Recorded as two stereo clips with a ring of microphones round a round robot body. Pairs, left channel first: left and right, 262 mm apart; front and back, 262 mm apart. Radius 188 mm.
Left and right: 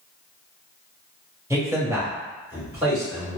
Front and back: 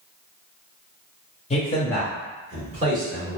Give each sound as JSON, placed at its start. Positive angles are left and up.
{"t": 1.5, "sound": "a man speaking", "azimuth_deg": -25, "distance_m": 1.0}